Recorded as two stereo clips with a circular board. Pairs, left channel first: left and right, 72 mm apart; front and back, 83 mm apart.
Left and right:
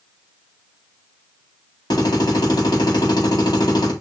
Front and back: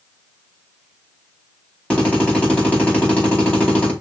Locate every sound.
1.9 s a drill: 75° left, 4.5 m